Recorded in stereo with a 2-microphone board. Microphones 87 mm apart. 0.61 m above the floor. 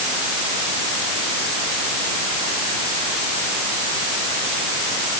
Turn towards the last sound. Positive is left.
No sound to turn to.